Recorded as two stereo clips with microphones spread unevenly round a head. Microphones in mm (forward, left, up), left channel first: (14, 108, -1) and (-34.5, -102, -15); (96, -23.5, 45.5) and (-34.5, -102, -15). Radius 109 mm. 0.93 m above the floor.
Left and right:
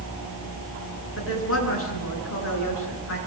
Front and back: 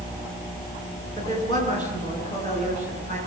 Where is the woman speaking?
100° left, 9.5 m.